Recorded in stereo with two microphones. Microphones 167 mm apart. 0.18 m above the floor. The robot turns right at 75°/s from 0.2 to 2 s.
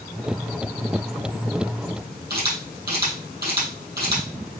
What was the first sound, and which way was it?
A camera shutter, 70° right (ahead or behind).